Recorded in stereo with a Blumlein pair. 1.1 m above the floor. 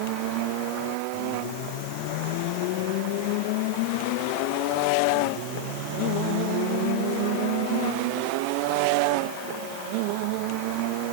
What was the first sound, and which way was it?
Only background noise.